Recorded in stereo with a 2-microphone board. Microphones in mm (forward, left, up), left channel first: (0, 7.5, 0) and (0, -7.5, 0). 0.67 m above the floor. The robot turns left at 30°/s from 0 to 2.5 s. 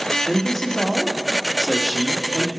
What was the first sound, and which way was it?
A man speaking, 175° left.